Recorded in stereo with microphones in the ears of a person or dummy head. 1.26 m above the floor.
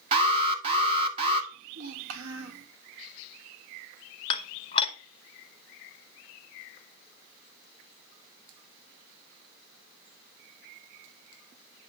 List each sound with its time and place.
0.1 s an alarm: 25° right (ahead or behind), 1.5 m
1.5 s a child speaking: 80° right, 1.3 m
4.3 s dishes clattering: 35° left (ahead or behind), 0.9 m